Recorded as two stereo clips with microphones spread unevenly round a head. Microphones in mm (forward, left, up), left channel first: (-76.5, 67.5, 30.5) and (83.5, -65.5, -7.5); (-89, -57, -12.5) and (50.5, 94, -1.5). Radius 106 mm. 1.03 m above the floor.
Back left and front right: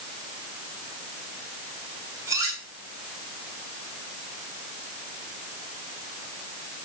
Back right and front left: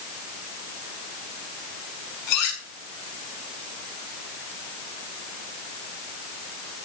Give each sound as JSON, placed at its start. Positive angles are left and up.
{"t": 2.3, "sound": "cutlery clinking", "azimuth_deg": -115, "distance_m": 7.0}